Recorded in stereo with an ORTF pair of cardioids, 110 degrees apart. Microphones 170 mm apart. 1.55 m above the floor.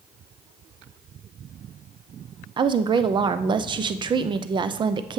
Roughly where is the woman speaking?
Ahead right.